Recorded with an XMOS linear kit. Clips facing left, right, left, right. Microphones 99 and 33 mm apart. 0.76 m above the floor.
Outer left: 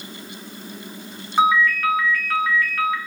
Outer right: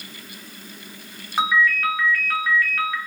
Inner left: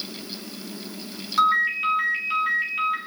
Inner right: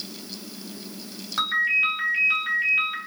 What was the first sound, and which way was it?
A ringtone, centre (ahead or behind).